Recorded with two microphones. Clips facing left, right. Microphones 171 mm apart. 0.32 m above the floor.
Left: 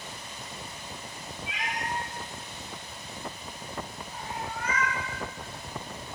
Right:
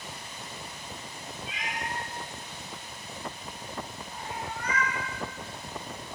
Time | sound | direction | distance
1.5 | a cat meowing | 65° left (ahead or behind) | 0.9 m